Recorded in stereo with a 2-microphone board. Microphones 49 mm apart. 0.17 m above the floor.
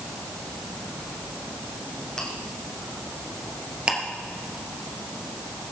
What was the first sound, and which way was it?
Chewing, 15° left (ahead or behind).